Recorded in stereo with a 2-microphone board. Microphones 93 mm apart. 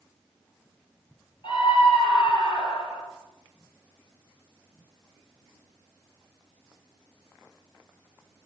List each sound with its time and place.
1.4 s a scream: 65° left (ahead or behind), 5.5 m